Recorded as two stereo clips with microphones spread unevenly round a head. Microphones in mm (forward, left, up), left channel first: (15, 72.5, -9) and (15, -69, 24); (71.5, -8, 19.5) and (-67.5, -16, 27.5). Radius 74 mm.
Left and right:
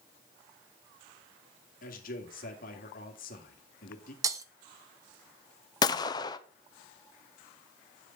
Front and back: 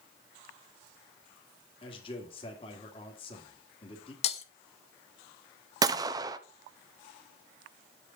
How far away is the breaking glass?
About 0.8 m.